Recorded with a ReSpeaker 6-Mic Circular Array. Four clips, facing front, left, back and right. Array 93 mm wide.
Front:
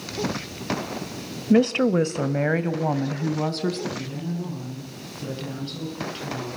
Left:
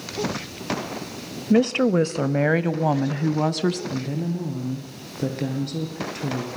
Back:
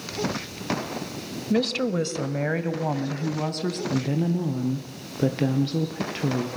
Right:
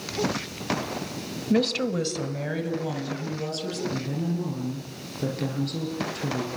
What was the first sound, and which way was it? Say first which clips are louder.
A woman speaking: left 6 dB, front 6 dB; 35° left.